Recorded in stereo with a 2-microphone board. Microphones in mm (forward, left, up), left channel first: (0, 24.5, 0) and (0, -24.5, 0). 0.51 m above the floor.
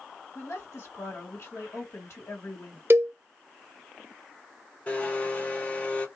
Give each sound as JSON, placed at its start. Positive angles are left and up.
{"t": 0.3, "sound": "a woman speaking", "side_deg": 60, "distance_m": 1.9}
{"t": 2.9, "sound": "a cowbell", "side_deg": -55, "distance_m": 0.5}
{"t": 4.9, "sound": "a blender", "side_deg": 25, "distance_m": 1.4}